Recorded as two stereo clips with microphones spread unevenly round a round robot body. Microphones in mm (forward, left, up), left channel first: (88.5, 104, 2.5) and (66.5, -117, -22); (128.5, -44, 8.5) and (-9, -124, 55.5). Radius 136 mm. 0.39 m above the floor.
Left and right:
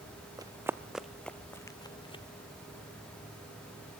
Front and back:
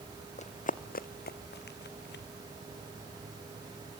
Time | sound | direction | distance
0.4 | running footsteps | 20° right | 1.3 m